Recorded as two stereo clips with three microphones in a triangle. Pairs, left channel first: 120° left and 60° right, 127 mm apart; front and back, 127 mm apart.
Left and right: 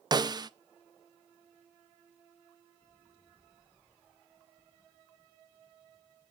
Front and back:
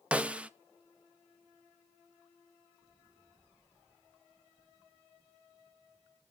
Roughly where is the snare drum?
Right.